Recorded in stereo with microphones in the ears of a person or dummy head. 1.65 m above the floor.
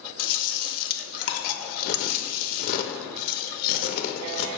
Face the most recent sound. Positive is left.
turn(degrees=50)  # may be behind; listen again after turning